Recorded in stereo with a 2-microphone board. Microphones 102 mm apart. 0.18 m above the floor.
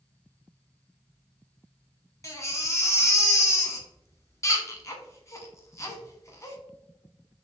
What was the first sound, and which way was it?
A baby crying, 30° left (ahead or behind).